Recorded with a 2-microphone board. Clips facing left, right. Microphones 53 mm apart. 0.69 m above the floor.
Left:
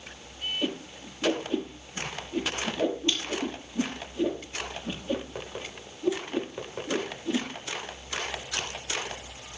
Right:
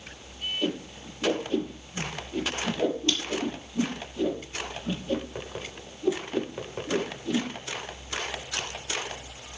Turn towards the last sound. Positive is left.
turn(degrees=10)  # may be behind; listen again after turning